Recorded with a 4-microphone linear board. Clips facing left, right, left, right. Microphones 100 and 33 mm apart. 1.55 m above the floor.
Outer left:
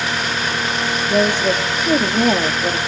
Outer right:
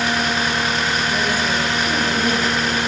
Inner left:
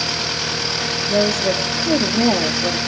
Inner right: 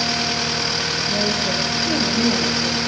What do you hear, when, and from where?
1.1 s a woman speaking: 75° left (ahead or behind), 3 m